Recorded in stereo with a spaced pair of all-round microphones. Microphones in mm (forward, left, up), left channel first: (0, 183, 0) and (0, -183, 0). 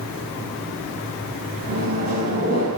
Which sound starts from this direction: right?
A microwave, at 1.7 s.